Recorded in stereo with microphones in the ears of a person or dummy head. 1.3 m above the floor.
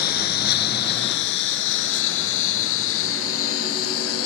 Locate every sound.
0.0 s a lawn mower: 60° left (ahead or behind); by 4.3 s 85° left